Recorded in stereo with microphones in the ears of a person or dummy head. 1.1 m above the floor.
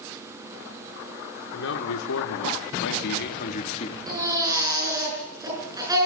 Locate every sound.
1.5 s a man speaking: 70° left (ahead or behind), 2.5 m; by 4.0 s 30° left (ahead or behind), 1.7 m
4.1 s a baby crying: 20° right (ahead or behind), 6.5 m